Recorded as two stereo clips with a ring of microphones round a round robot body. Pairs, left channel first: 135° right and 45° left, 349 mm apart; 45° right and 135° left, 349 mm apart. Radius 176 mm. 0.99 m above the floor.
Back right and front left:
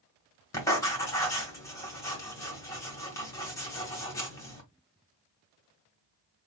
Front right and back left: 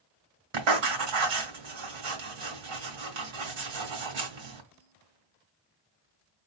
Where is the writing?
145° left, 1.9 m.